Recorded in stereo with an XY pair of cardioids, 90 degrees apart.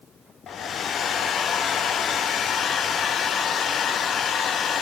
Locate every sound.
0.5 s a hair dryer: 65° left, 1.1 m